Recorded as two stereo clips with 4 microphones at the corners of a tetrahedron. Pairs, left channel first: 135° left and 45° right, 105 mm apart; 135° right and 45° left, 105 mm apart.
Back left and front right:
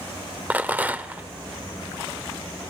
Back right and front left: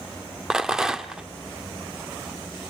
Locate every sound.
0.5 s a rattle: 25° right, 0.8 m